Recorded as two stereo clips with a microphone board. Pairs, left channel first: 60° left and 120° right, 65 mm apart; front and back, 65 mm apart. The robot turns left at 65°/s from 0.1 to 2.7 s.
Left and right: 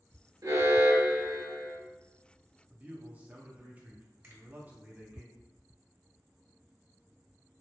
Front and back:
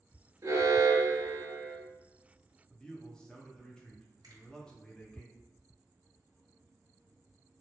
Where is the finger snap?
175° right, 1.6 m.